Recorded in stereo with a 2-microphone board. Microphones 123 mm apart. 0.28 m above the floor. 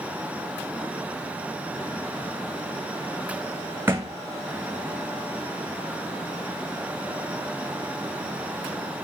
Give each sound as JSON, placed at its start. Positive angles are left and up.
{"t": 3.9, "sound": "a thud", "side_deg": -20, "distance_m": 0.8}